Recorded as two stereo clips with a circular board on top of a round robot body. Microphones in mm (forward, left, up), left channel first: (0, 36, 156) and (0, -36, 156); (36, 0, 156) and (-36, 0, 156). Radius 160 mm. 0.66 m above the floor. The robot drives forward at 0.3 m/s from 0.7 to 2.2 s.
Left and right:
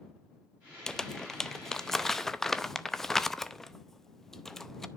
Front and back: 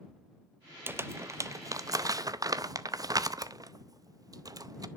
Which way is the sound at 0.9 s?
165° left.